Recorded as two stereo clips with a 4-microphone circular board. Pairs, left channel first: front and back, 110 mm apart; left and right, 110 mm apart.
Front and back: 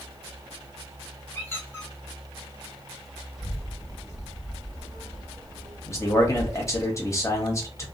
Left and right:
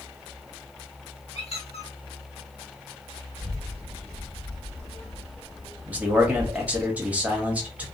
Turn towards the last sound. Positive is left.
turn(degrees=-25)